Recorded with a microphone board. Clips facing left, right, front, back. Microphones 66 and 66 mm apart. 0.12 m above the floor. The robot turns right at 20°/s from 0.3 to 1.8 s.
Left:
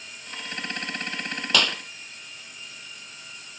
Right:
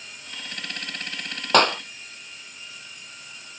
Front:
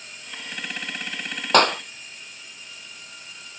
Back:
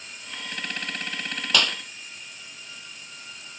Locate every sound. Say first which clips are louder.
1.5 s a clap: right 7 dB, front 9 dB; 45° right; by 1.8 s 40° right